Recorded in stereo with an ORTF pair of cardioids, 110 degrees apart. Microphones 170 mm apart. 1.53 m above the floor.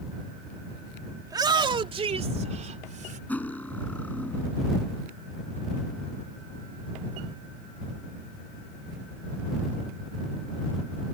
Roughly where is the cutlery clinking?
Ahead.